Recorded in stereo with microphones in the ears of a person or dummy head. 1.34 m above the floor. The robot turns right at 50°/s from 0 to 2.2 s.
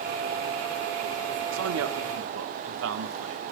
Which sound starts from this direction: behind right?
A man speaking, at 1.5 s.